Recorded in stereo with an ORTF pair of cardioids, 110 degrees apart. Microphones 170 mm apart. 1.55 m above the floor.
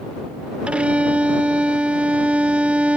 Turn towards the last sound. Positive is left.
turn(degrees=-5)